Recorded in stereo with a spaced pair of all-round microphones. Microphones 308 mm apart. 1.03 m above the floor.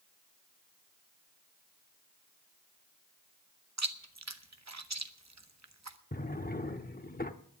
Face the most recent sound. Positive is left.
turn(degrees=30)  # may be behind; listen again after turning